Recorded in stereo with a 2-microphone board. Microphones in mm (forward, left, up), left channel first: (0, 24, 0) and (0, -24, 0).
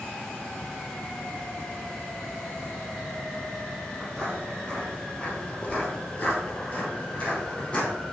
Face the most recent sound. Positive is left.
turn(degrees=30)  # may be behind; listen again after turning